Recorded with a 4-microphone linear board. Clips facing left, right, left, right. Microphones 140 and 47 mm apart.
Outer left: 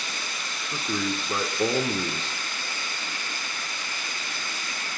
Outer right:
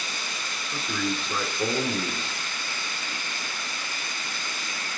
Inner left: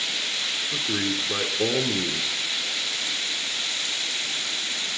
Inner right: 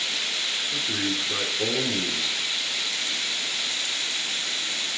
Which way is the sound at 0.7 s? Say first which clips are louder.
Outer left 1 dB, inner left 2 dB; 25° left (ahead or behind).